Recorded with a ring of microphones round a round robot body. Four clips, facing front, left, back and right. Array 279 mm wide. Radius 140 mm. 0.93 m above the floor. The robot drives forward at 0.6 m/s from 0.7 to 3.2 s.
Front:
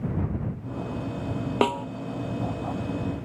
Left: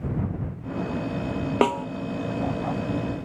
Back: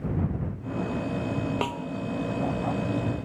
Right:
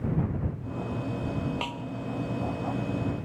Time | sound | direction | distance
1.6 | a snare drum | 65° left | ?